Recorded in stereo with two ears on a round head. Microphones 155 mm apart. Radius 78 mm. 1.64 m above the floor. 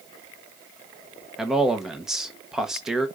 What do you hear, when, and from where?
1.4 s a man speaking: 5° right (ahead or behind), 1.2 m